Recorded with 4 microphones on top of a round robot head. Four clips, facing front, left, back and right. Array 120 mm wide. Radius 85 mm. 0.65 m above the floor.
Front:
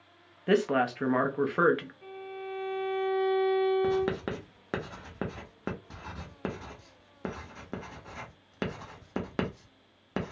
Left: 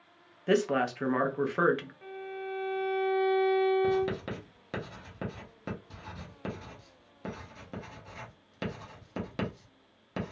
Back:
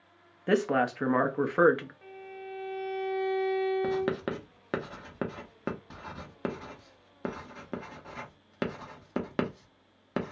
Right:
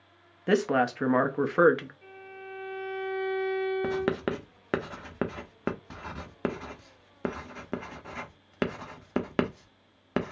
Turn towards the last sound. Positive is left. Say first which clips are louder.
# even, front 1 dB
turn(degrees=-95)